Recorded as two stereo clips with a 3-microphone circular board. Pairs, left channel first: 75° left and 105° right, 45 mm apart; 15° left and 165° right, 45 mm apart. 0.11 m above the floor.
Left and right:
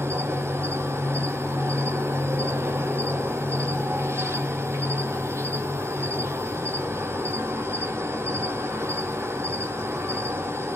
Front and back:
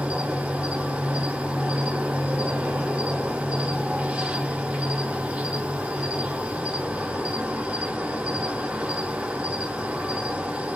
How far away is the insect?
About 0.7 m.